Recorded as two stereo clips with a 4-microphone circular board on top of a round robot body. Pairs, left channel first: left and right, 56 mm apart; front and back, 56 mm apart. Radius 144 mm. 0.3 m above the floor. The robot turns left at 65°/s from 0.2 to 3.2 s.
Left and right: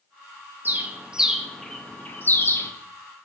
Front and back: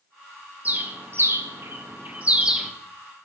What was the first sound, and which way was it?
A bird, 130° right.